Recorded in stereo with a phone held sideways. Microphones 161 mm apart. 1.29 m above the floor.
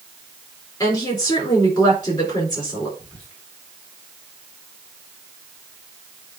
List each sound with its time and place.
0.8 s a woman speaking: 20° left (ahead or behind), 4.5 m
3.0 s whispering: 10° left (ahead or behind), 5 m